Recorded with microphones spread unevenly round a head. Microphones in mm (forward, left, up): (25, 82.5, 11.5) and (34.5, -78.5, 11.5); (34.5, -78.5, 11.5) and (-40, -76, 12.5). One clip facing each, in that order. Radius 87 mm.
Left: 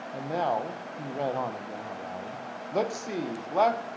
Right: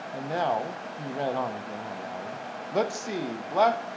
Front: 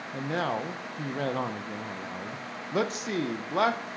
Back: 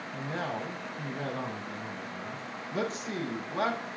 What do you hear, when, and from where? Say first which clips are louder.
0.1 s a man speaking: right 1 dB, front 5 dB; 5° left, 0.9 m